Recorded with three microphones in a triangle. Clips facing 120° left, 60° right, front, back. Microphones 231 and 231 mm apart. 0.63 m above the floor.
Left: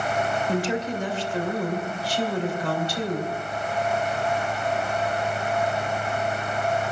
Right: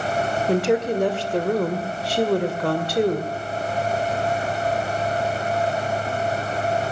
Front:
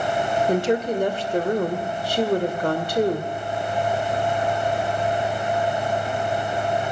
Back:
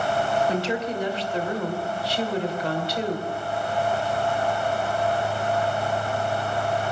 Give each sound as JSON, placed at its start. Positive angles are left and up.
{"t": 0.5, "sound": "a woman speaking", "azimuth_deg": -40, "distance_m": 2.5}